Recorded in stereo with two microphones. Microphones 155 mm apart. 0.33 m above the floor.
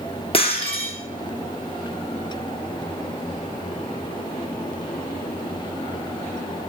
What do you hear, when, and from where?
0.3 s breaking glass: 35° left (ahead or behind), 3.5 m